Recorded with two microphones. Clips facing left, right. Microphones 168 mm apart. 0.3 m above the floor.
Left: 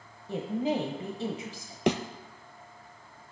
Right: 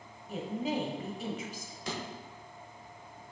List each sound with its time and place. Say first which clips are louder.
0.3 s a woman speaking: left 4 dB; 30° left (ahead or behind), 1.2 m
1.9 s a thud: left 12 dB; 80° left, 0.8 m